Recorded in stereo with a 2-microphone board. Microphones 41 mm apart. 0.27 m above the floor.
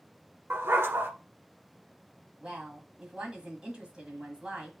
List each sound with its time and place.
0.5 s a dog barking: 70° right (ahead or behind), 1.1 m
2.4 s a woman speaking: 25° right (ahead or behind), 1.6 m